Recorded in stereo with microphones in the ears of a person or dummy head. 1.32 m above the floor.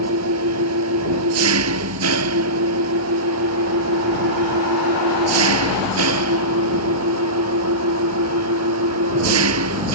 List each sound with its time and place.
0.0 s an engine running: 75° right (ahead or behind)